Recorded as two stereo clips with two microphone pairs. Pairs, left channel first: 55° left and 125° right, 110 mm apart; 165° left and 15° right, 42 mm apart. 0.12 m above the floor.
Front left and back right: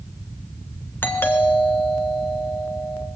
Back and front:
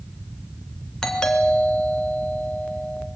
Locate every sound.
1.0 s a doorbell: 105° left, 2.5 m